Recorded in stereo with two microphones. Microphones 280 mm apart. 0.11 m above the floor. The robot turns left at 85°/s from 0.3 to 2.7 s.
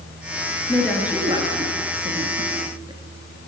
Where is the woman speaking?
10° left (ahead or behind), 1.9 m; by 3.0 s 15° right (ahead or behind), 1.9 m.